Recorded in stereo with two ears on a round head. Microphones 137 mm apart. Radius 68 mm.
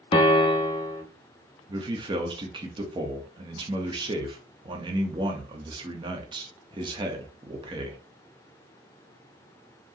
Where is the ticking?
No ticking in this recording.